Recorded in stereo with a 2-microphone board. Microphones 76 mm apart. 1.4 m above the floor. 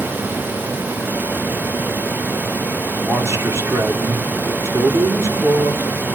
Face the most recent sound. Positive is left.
turn(degrees=-40)  # may be behind; listen again after turning